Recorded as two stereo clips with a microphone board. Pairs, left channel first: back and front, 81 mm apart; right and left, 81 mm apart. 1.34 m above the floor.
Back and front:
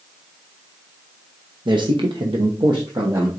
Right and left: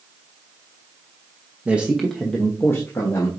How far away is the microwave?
I don't hear a microwave.